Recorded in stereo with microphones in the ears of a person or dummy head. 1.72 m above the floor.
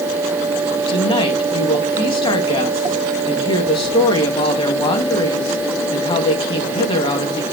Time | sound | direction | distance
0.9 | a woman speaking | 30° left (ahead or behind) | 2.5 m